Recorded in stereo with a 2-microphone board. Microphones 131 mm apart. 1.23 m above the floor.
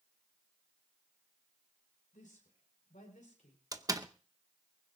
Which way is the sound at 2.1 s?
85° left.